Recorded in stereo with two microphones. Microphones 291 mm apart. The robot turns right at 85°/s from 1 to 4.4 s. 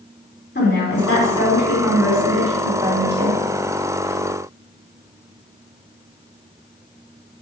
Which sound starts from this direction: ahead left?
A woman speaking, at 0.6 s.